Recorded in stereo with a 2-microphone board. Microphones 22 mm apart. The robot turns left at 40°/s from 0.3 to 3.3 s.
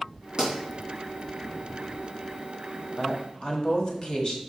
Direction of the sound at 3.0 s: 50° left (ahead or behind).